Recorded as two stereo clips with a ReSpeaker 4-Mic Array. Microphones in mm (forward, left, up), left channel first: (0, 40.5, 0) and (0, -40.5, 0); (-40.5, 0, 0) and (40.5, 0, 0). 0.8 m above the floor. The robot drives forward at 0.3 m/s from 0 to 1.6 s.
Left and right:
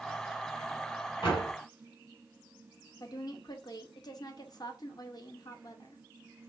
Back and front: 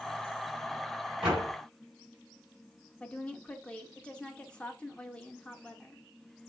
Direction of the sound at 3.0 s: 105° left.